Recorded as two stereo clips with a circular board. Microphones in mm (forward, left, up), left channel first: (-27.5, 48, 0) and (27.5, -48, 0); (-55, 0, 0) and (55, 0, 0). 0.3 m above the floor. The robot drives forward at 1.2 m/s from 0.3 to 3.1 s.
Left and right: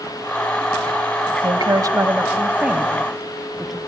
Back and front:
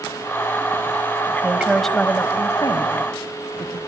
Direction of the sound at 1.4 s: 65° right.